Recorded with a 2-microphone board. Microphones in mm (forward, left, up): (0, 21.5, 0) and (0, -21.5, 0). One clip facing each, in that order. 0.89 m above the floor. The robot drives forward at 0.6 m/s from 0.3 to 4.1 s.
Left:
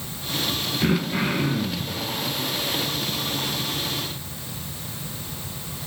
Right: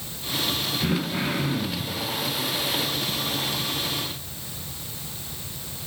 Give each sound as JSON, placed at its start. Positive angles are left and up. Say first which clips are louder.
{"t": 0.8, "sound": "throat clearing", "louder": "left 5 dB", "side_deg": 25, "distance_m": 0.7}